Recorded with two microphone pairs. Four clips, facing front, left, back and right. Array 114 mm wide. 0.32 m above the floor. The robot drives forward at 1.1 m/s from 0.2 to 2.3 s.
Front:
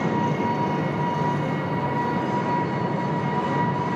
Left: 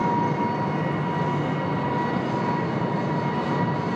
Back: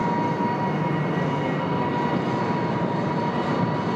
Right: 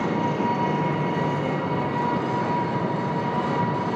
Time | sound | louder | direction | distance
0.0 | an engine running | left 1 dB, even | 70° right | 1.8 m